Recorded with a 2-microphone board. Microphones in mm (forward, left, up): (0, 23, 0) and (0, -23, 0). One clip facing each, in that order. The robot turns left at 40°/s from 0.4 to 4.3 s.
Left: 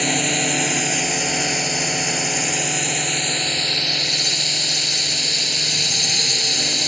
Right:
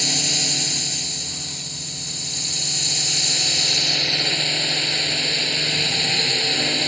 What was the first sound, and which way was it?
A drone, 145° left.